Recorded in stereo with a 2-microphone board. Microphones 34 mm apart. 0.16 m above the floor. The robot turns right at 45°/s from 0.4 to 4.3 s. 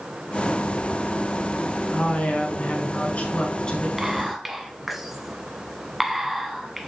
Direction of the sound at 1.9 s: 60° left.